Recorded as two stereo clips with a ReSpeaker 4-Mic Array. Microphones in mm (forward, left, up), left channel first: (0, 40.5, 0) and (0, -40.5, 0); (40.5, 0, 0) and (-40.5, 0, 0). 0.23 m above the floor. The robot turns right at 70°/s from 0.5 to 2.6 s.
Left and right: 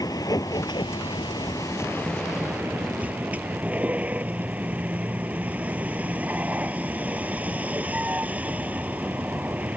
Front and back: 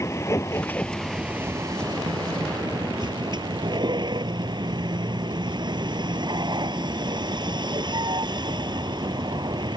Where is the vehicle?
50° left; by 9.8 s 160° right.